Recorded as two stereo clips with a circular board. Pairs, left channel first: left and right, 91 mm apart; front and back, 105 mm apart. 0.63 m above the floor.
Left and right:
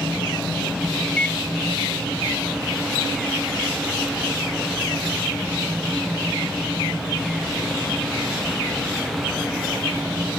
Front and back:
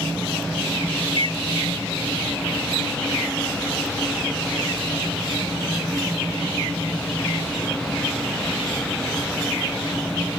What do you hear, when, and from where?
1.1 s a microwave: 165° left